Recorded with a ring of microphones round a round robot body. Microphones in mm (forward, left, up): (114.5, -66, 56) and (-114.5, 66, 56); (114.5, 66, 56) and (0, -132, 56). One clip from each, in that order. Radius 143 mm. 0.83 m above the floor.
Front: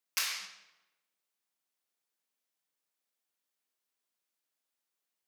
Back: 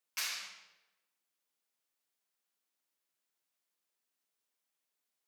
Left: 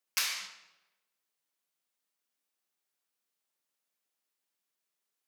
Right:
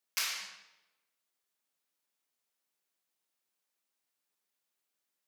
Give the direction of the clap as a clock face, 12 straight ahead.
12 o'clock.